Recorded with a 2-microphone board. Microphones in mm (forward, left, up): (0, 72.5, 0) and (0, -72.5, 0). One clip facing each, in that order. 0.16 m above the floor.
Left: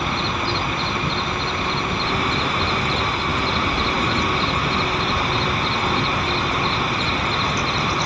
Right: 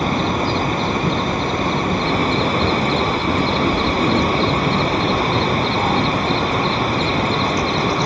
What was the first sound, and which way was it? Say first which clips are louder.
An insect: right 6 dB; 40° right (ahead or behind).